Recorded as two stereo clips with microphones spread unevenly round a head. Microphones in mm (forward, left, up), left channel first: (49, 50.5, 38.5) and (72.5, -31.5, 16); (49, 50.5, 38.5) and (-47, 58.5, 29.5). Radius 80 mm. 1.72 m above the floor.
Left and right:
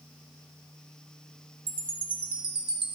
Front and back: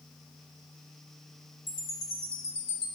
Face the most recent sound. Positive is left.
turn(degrees=-55)